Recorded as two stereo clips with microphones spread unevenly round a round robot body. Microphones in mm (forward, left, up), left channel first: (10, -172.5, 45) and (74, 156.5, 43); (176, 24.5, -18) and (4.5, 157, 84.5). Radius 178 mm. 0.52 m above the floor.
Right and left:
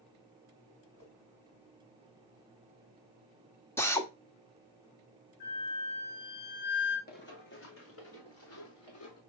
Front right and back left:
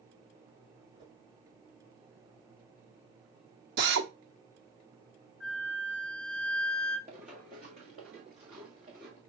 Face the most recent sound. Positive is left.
turn(degrees=-155)